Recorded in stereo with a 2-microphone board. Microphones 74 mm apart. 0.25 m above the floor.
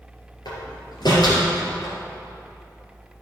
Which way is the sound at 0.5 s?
70° left (ahead or behind).